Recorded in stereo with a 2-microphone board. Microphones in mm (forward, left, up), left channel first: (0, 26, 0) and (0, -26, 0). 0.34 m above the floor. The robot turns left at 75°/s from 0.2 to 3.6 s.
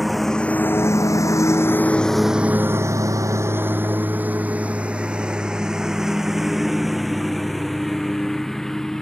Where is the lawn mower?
Centre (ahead or behind); by 9.0 s 10° left (ahead or behind).